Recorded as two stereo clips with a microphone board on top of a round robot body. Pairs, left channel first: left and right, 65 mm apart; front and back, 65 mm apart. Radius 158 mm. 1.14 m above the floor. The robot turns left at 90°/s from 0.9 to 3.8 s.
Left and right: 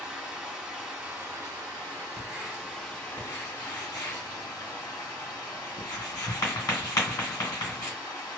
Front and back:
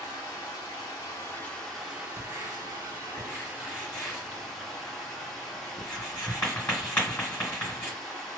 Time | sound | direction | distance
0.0 | running water | 10° right | 1.8 m
2.2 | writing | 150° right | 1.8 m